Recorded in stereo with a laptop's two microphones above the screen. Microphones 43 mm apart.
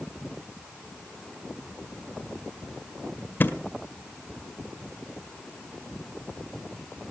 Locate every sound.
3.4 s a thud: 50° left (ahead or behind), 1.8 m